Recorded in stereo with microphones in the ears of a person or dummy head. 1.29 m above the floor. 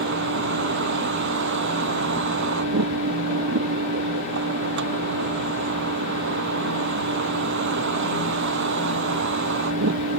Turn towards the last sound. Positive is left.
turn(degrees=-65)  # may be behind; listen again after turning